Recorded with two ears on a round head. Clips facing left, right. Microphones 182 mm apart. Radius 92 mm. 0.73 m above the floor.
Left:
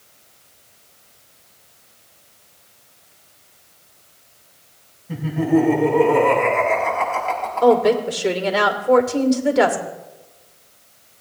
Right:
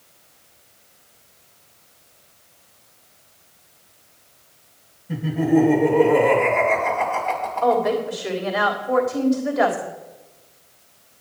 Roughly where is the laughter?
Centre.